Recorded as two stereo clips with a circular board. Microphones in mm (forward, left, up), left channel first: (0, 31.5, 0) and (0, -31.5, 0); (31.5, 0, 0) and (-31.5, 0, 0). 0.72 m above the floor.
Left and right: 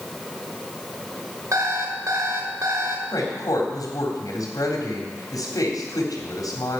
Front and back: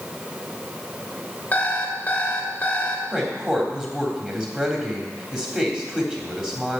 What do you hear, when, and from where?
1.5 s an alarm clock: 65° right, 1.9 m
3.1 s a woman speaking: 100° left, 3.5 m